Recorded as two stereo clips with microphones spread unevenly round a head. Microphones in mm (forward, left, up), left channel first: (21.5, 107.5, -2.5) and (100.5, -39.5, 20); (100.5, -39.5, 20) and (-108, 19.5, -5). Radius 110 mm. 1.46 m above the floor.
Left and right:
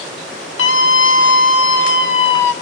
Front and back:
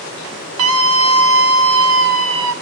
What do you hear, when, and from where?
0.6 s a scream: 135° left, 2 m